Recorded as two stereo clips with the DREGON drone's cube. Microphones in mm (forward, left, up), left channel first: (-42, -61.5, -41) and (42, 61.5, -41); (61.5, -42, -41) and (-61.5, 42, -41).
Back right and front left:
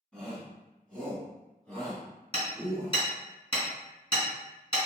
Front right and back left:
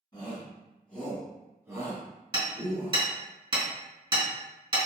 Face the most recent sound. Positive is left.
turn(degrees=-165)